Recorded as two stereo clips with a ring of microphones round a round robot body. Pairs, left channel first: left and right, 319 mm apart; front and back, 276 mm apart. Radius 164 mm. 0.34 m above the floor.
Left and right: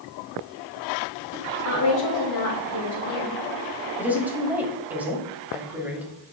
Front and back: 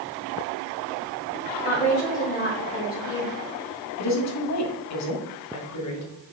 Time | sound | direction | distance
1.6 | a woman speaking | 55° left | 2 m
4.0 | a woman speaking | 5° right | 1.6 m